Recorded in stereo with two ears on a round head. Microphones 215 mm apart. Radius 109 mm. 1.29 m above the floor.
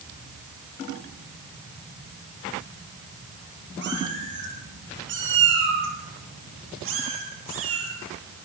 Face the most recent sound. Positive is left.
turn(degrees=-65)  # may be behind; listen again after turning